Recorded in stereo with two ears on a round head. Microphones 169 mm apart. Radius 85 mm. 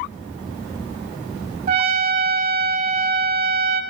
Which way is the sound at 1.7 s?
45° right (ahead or behind).